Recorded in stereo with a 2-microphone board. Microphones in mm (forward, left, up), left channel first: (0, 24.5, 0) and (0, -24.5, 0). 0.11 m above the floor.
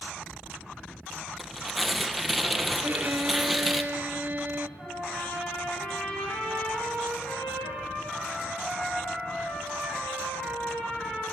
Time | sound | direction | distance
1.4 | tearing paper | centre (ahead or behind) | 1.2 m
2.8 | a violin | 40° right (ahead or behind) | 0.9 m
4.8 | a trumpet | 15° left (ahead or behind) | 9.5 m